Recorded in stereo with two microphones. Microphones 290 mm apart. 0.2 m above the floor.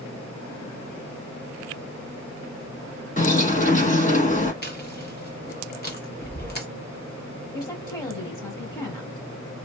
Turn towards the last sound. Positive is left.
turn(degrees=15)  # may be behind; listen again after turning